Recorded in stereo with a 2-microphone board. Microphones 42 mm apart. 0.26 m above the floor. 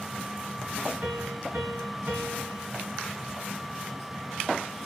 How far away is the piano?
About 2.5 m.